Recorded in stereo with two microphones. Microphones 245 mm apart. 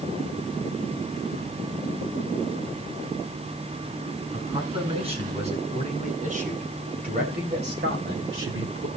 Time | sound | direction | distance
4.3 | a man speaking | 20° right (ahead or behind) | 6.5 m